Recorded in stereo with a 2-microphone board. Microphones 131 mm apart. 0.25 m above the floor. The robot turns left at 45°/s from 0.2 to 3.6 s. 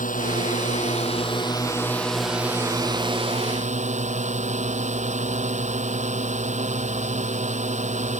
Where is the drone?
90° left; by 8.2 s 60° right.